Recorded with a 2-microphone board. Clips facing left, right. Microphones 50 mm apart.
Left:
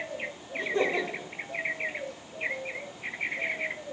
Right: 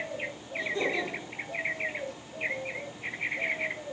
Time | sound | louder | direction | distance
0.5 | laughter | left 3 dB | 45° left (ahead or behind) | 1.9 m